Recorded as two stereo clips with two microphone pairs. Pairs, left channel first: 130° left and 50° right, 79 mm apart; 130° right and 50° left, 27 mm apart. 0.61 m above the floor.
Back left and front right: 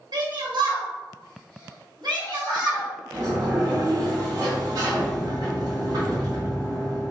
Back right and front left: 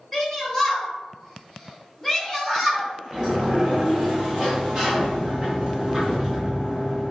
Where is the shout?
45° right, 1.4 m.